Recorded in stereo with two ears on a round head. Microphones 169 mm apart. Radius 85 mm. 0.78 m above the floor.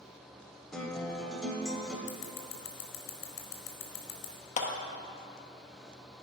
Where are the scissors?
60° left (ahead or behind), 1.9 m.